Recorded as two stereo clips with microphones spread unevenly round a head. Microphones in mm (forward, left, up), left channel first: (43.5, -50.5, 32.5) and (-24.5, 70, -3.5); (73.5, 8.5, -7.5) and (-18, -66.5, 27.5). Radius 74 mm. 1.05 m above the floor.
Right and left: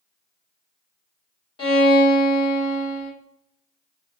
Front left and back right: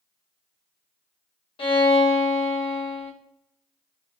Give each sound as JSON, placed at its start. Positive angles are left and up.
{"t": 1.6, "sound": "a violin", "azimuth_deg": -10, "distance_m": 1.3}